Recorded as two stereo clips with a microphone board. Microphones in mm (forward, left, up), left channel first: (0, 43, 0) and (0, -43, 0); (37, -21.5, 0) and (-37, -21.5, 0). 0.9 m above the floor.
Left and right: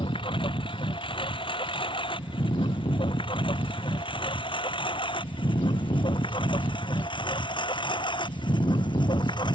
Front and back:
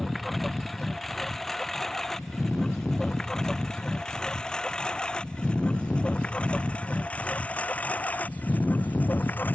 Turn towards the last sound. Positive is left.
turn(degrees=65)